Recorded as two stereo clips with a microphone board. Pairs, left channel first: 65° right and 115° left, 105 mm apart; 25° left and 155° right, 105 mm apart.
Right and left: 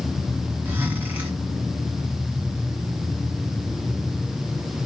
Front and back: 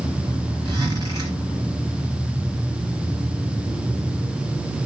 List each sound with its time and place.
0.7 s a zipper: 175° left, 1.7 m